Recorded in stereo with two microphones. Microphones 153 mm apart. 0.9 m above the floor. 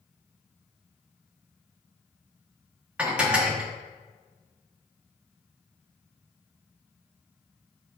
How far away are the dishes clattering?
About 0.7 m.